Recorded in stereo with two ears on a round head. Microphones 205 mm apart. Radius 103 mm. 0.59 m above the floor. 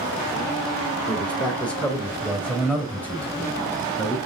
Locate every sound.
1.1 s a man speaking: 5° left (ahead or behind), 2.5 m